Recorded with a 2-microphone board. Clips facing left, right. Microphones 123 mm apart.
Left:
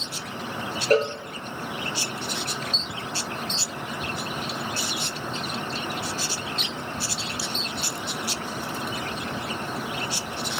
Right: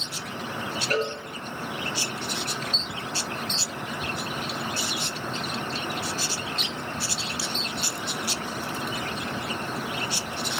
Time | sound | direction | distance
0.9 | a cowbell | 35° left (ahead or behind) | 1.6 m